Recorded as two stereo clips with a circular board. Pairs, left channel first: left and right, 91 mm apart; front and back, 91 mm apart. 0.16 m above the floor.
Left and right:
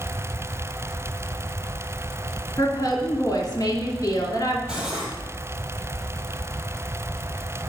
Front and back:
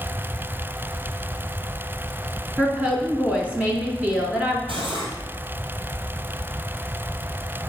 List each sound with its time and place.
2.6 s a woman speaking: 110° left, 2 m
4.7 s cutlery clinking: 175° right, 2.5 m